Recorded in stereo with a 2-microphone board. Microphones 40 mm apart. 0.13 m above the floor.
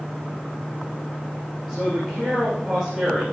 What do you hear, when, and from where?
1.7 s a man speaking: 5° left (ahead or behind), 5.5 m